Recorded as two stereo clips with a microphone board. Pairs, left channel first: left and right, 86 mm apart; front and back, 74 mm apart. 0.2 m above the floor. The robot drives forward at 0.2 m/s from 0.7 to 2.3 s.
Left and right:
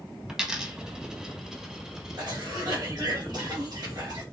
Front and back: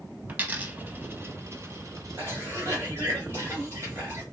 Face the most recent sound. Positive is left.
turn(degrees=-125)